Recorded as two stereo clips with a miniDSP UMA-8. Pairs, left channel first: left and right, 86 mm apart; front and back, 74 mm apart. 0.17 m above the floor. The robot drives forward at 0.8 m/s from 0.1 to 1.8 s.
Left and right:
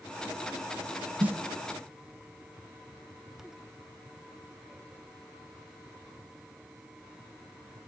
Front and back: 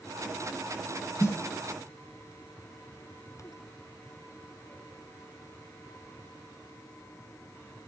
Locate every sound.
1.2 s a snare drum: 25° right, 0.7 m; by 1.4 s 35° right, 0.6 m